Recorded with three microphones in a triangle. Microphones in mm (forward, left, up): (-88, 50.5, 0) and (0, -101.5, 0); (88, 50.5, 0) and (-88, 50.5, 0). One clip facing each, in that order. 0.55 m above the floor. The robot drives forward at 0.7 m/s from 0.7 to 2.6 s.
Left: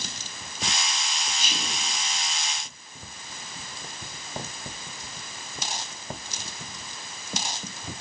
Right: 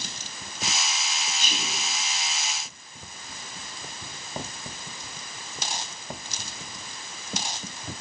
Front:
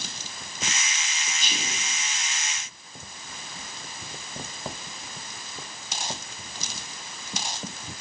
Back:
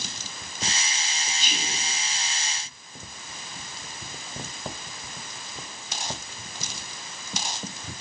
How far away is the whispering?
About 4 m.